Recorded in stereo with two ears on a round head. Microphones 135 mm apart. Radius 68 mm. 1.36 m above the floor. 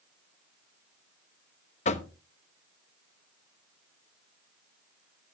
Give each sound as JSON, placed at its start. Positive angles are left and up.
{"t": 1.9, "sound": "knocking", "side_deg": 45, "distance_m": 0.9}